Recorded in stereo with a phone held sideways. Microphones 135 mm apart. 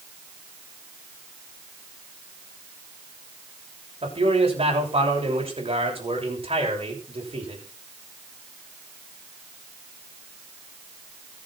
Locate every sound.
4.0 s a man speaking: 45° right (ahead or behind), 6.5 m